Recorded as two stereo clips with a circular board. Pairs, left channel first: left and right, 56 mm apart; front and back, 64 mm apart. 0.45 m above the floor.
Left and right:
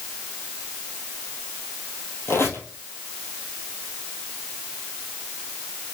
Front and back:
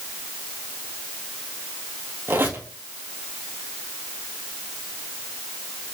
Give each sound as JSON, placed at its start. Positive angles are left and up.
{"t": 2.3, "sound": "a squeak", "azimuth_deg": 125, "distance_m": 1.6}